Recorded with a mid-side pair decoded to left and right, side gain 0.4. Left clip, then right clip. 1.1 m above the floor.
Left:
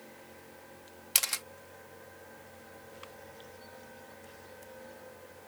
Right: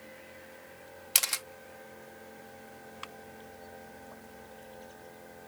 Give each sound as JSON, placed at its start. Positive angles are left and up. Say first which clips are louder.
{"t": 1.1, "sound": "a camera shutter", "louder": "right 1 dB", "azimuth_deg": -10}